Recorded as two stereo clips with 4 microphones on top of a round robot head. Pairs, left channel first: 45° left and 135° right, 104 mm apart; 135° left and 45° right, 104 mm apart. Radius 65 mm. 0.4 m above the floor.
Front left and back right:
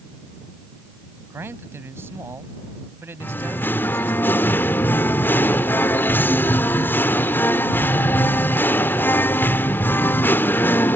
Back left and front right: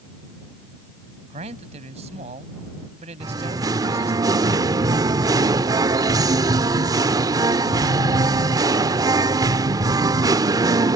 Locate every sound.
1.3 s a man speaking: 65° right
3.2 s singing: 15° right